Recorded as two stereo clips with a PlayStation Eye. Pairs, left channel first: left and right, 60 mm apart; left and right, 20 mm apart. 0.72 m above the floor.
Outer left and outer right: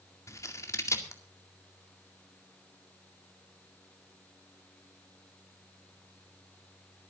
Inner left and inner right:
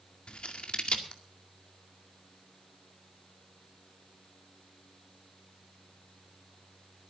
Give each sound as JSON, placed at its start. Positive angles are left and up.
{"t": 0.3, "sound": "scissors", "side_deg": 60, "distance_m": 2.0}